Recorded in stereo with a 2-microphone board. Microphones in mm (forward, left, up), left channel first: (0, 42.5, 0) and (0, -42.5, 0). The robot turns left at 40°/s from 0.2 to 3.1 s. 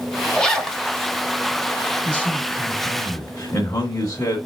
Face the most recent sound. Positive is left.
turn(degrees=130)